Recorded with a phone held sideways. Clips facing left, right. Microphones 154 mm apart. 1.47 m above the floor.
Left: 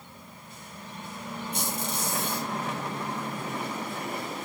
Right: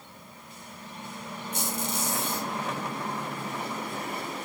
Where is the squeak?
65° left (ahead or behind), 2.0 m.